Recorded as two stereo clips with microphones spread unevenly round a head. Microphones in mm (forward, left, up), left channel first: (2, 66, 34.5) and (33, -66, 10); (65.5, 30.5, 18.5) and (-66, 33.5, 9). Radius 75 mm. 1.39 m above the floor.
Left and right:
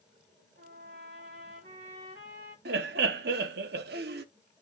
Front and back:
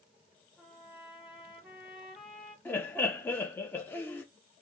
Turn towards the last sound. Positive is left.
turn(degrees=-80)